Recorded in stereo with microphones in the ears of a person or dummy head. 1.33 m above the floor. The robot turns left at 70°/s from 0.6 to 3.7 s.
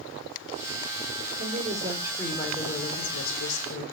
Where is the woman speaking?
120° right, 4 m; by 3.8 s 75° left, 4 m.